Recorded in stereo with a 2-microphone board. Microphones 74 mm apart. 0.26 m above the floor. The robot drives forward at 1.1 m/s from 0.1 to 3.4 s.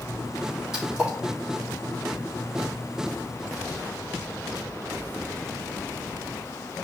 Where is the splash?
10° right (ahead or behind), 3.5 m.